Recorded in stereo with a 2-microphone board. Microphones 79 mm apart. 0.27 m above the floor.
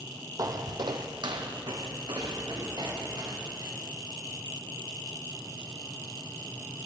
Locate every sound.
0.4 s footsteps: 50° right (ahead or behind), 0.5 m; by 3.7 s 65° right (ahead or behind), 2.5 m